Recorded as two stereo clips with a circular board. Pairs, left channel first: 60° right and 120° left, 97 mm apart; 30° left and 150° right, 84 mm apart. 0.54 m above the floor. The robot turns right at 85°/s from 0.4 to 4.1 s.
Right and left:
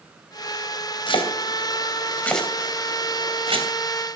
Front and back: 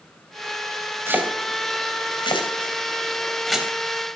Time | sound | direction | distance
1.1 | chopping | 90° right | 3 m